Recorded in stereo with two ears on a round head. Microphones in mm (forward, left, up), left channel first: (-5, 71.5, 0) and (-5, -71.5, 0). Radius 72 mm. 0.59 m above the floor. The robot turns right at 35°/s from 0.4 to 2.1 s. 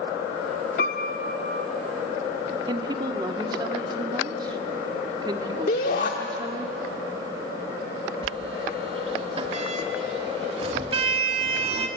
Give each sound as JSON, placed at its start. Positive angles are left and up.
{"t": 0.8, "sound": "a piano", "azimuth_deg": 100, "distance_m": 0.8}
{"t": 2.7, "sound": "a woman speaking", "side_deg": -25, "distance_m": 1.4}
{"t": 5.7, "sound": "a shout", "side_deg": 55, "distance_m": 1.3}
{"t": 8.2, "sound": "a sliding door", "side_deg": -35, "distance_m": 1.3}